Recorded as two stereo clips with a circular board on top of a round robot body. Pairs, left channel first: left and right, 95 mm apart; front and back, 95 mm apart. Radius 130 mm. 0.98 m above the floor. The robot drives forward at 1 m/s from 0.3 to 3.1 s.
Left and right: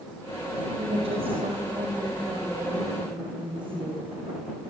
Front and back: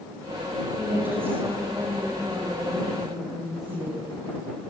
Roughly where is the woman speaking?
Right.